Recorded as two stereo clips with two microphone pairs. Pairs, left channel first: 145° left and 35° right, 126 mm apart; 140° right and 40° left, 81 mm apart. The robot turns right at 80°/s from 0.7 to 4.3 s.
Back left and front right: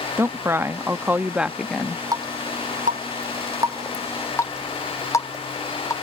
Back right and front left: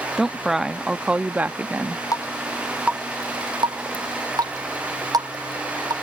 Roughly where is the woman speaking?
Ahead right.